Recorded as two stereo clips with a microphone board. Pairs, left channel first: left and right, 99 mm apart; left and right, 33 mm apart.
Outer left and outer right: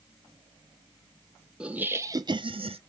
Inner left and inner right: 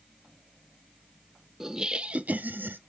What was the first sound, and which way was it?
Laughter, 10° right (ahead or behind).